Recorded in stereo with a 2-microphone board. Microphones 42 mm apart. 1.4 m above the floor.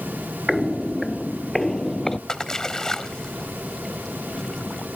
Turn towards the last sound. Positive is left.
turn(degrees=15)  # may be behind; listen again after turning